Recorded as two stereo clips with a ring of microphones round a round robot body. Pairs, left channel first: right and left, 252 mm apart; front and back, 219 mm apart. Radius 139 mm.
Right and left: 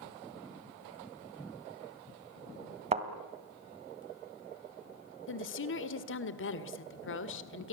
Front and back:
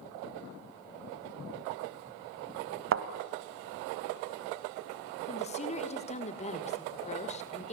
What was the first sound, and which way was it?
A thud, 155° left.